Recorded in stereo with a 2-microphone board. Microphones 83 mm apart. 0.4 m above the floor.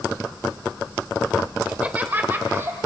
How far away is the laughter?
About 1.1 m.